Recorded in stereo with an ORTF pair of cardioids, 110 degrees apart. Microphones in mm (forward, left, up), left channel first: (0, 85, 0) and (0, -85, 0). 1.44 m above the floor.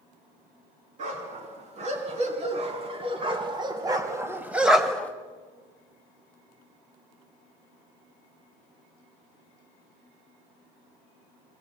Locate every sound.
1.0 s a dog barking: 45° right, 5 m; by 5.1 s 15° left, 1.6 m